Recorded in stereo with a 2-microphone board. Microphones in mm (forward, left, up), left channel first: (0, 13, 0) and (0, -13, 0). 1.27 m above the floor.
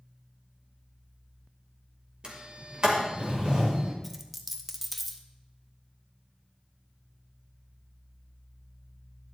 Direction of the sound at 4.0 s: 10° right (ahead or behind).